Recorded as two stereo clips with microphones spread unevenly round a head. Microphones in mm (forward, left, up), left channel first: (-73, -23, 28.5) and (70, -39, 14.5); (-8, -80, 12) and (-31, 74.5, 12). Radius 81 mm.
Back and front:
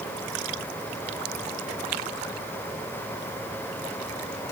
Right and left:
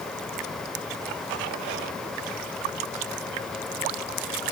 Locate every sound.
Only background noise.